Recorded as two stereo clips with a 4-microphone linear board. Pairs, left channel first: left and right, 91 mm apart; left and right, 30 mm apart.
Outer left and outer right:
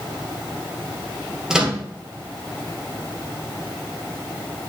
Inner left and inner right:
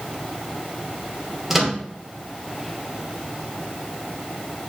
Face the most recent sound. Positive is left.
turn(degrees=-5)  # may be behind; listen again after turning